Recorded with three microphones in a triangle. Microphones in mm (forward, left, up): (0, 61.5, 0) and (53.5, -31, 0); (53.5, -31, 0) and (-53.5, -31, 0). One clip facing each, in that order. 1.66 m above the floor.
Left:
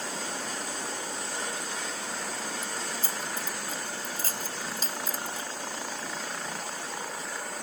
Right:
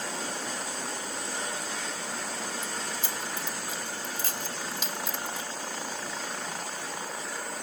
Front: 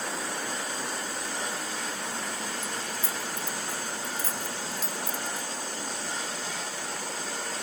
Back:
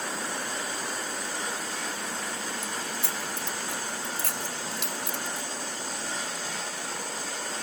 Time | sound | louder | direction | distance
2.6 | keys jangling | even, even | 170° left | ?